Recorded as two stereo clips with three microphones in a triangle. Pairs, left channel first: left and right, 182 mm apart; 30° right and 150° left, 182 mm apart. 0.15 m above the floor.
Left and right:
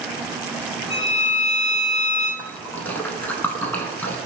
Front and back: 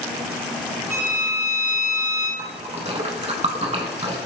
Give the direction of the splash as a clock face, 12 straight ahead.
7 o'clock.